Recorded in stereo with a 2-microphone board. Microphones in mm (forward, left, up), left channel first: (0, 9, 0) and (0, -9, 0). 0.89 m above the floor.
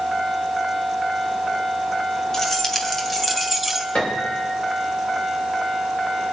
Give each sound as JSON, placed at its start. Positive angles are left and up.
{"t": 2.3, "sound": "keys jangling", "side_deg": 30, "distance_m": 3.0}
{"t": 4.0, "sound": "a piano", "side_deg": 70, "distance_m": 3.0}